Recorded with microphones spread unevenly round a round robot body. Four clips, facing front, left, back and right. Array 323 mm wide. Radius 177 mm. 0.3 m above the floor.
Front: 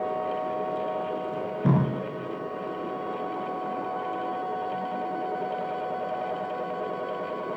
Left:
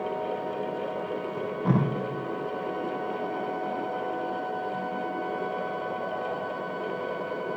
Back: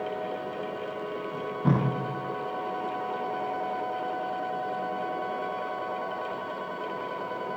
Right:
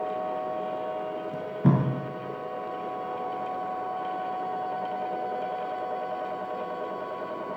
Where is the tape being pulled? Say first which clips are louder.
Right 2 dB, front 1 dB; 75° right, 8.5 m.